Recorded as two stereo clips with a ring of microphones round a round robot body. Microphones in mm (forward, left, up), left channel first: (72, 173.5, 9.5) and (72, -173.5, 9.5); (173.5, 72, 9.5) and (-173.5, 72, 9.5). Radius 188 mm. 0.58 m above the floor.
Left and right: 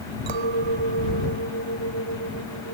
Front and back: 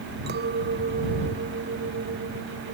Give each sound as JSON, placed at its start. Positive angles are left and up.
{"t": 0.3, "sound": "a clink", "azimuth_deg": -115}